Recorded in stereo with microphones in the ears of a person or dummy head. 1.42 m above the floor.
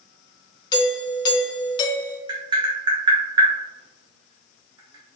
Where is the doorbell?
20° left (ahead or behind), 0.5 m.